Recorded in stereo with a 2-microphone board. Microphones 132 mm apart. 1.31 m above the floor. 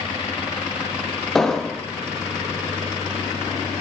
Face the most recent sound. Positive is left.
turn(degrees=5)  # may be behind; listen again after turning